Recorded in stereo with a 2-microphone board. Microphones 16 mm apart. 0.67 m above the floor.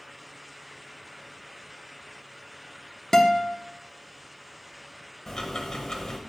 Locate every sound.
3.1 s a guitar: 40° left (ahead or behind), 0.7 m
5.3 s ticking: 35° left (ahead or behind), 1.0 m